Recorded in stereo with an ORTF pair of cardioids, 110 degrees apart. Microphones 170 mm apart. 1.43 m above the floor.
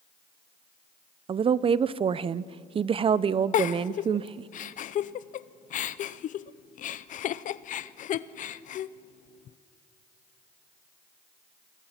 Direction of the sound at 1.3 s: 35° right.